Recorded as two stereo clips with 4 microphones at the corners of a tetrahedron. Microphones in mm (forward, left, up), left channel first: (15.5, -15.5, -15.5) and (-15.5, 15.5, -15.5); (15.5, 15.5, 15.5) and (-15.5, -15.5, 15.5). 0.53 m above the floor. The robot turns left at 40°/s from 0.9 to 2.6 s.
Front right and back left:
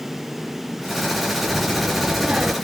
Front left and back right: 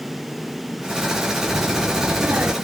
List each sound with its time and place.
1.5 s a child speaking: 125° right; by 2.5 s 170° right